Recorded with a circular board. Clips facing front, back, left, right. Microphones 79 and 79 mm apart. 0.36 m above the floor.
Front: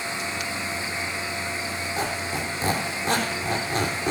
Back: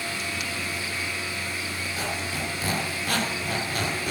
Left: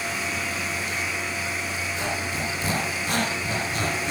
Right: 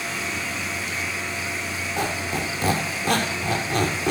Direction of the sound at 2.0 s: 65° right.